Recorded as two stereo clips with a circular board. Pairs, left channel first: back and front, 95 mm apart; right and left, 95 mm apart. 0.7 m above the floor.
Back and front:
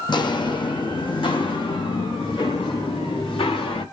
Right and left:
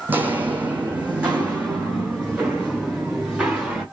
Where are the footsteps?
155° left, 1.4 m; by 3.8 s 170° left, 3.5 m.